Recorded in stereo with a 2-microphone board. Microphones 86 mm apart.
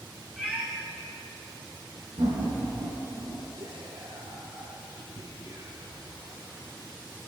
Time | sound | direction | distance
0.4 | a cat meowing | 15° right (ahead or behind) | 8 m
2.2 | laughter | 75° right (ahead or behind) | 7 m
3.6 | whispering | 75° right (ahead or behind) | 2.5 m